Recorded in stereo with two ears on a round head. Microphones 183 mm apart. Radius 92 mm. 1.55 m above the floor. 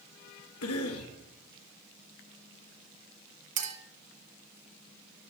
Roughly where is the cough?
Left.